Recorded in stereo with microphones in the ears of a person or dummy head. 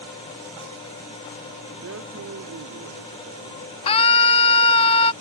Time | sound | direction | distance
1.8 | a man speaking | 75° right (ahead or behind) | ?
3.9 | a scream | 30° left (ahead or behind) | ?